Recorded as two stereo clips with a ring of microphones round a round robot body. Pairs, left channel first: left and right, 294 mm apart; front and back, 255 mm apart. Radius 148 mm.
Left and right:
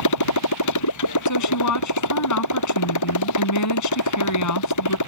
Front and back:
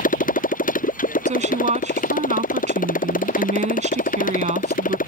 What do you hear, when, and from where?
0.0 s a motorcycle: 60° left
1.3 s a woman speaking: 120° left